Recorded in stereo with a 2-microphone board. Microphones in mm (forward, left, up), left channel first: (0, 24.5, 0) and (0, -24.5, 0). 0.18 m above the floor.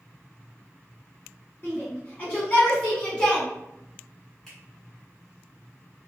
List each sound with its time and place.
1.6 s a shout: 40° left (ahead or behind), 1.7 m; by 3.5 s 20° left (ahead or behind), 1.5 m
4.5 s a finger snap: 10° left (ahead or behind), 1.9 m